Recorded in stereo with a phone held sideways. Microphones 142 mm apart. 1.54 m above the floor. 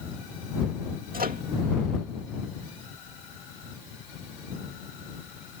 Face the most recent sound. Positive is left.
turn(degrees=-85)